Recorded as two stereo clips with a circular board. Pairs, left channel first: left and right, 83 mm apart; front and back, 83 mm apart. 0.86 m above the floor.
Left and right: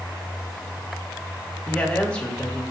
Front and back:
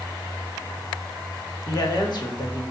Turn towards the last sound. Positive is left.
turn(degrees=15)